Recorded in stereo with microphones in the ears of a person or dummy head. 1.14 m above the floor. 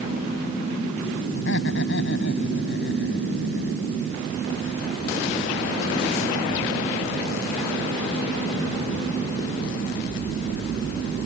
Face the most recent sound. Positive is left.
turn(degrees=65)  # may be behind; listen again after turning